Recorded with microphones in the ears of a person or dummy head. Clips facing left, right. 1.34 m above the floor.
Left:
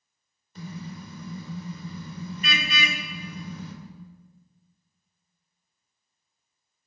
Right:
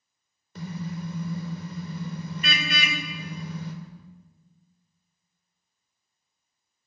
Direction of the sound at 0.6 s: 60° right (ahead or behind).